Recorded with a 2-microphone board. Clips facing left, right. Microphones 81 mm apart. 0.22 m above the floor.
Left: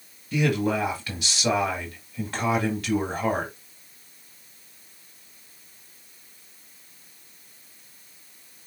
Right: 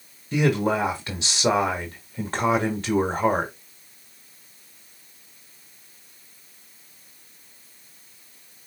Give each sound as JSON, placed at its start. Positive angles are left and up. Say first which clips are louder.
{"t": 0.3, "sound": "a man speaking", "louder": "right 2 dB", "side_deg": -30, "distance_m": 1.0}